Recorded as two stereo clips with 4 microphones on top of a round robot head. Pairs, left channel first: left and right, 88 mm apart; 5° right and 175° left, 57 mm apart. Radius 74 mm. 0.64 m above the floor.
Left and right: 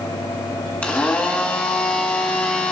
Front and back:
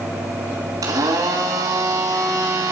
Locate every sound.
0.8 s a blender: 165° left, 2.5 m